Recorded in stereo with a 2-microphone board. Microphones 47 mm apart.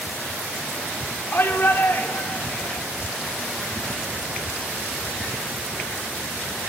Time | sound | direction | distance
1.3 | a shout | 45° left (ahead or behind) | 5.5 m